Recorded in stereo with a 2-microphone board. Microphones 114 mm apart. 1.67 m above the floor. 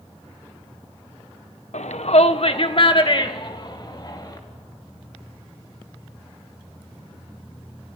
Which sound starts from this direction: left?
A shout, at 1.7 s.